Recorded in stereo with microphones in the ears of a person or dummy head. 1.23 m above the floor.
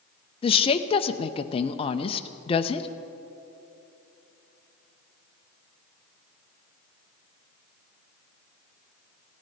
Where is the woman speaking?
25° left (ahead or behind), 0.6 m.